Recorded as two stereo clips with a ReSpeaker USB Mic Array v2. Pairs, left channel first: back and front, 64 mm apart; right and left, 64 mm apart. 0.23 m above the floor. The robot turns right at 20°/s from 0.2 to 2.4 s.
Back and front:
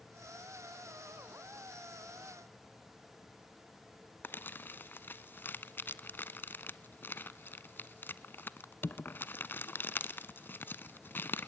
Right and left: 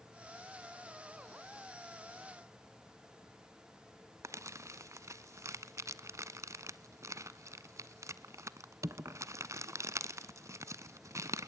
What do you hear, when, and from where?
4.2 s crumpling: 125° left, 0.5 m